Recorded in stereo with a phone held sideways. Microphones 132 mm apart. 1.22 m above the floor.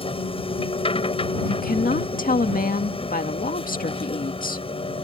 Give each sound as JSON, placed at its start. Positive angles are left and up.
{"t": 0.0, "sound": "a machine running", "side_deg": 40}
{"t": 1.5, "sound": "a woman speaking", "side_deg": 80}